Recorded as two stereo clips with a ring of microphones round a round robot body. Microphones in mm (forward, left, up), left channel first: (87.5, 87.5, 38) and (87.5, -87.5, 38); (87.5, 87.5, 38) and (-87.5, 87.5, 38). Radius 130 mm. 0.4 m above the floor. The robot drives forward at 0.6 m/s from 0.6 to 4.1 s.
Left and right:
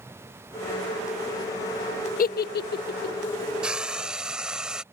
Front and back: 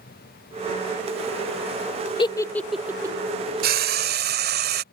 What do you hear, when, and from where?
2.2 s a giggle: 60° left; by 3.2 s 115° left
3.6 s frying: 175° right